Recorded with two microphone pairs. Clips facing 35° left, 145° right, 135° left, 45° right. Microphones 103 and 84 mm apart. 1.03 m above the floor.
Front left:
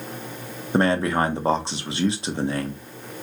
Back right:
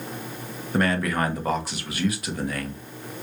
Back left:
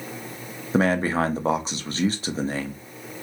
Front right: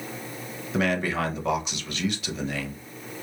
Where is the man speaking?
90° left, 0.7 m.